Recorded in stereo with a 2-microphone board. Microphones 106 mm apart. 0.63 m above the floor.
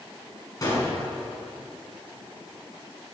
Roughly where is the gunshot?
Left.